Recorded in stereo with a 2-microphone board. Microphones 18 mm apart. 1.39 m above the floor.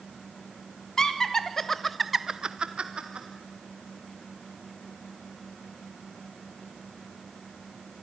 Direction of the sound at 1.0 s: 35° left (ahead or behind).